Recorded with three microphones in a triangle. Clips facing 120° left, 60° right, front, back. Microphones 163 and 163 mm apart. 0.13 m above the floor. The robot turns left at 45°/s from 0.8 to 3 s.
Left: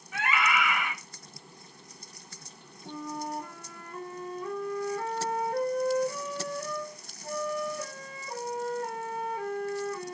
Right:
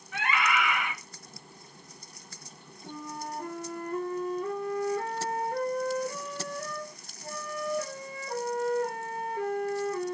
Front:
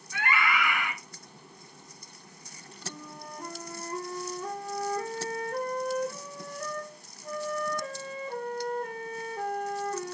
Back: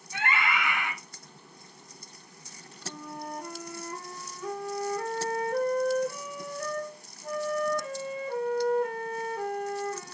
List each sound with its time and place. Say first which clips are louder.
0.1 s a scream: even, front 1 dB; 155° right, 1.2 m; by 0.9 s 160° right, 1.2 m
2.8 s a flute: left 3 dB, back 4 dB; 85° right, 1.0 m; by 10.1 s 95° right, 1.0 m